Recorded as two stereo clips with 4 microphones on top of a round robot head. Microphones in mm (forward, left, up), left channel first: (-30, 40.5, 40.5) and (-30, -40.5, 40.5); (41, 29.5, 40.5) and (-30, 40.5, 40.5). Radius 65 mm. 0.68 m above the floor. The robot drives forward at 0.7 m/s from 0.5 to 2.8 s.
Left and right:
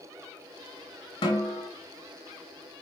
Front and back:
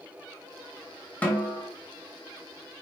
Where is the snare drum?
60° left, 2.5 m; by 1.7 s 65° left, 2 m.